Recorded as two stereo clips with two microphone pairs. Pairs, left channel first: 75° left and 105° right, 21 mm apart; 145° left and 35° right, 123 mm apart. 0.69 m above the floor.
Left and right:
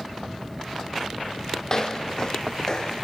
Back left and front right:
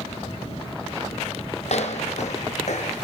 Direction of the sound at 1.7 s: 130° left.